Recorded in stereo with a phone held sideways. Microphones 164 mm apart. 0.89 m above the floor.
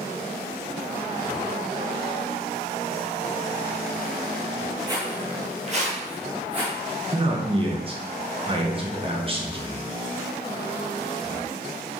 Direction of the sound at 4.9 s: 25° right (ahead or behind).